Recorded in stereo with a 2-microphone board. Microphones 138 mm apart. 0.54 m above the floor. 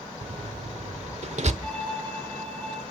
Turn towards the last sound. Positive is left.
turn(degrees=10)  # may be behind; listen again after turning